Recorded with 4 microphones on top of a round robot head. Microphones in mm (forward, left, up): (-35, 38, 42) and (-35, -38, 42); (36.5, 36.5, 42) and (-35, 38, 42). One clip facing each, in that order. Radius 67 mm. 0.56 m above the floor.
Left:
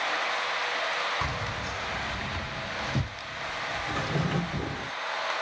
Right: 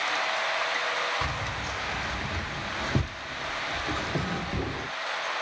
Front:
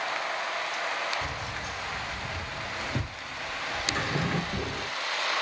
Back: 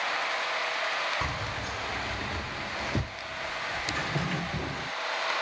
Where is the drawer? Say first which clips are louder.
Left 1 dB, front 4 dB; 50° left, 1.1 m.